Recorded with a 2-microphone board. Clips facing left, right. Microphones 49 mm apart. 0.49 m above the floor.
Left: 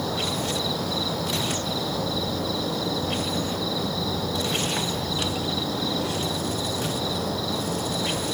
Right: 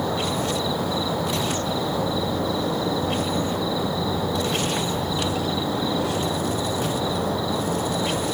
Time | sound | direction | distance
0.0 | an insect | 15° right (ahead or behind) | ?